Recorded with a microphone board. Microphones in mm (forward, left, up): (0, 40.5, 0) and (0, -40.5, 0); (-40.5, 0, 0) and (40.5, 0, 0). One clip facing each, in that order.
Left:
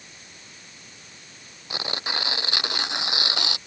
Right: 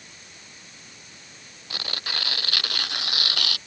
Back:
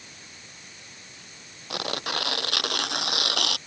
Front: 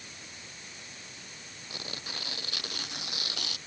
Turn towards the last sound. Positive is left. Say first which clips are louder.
# left 4 dB, back 13 dB
turn(degrees=160)